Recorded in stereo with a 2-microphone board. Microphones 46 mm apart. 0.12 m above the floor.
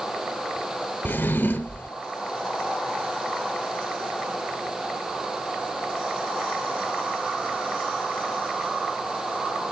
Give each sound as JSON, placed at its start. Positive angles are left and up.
{"t": 1.1, "sound": "a drawer", "side_deg": 40, "distance_m": 1.3}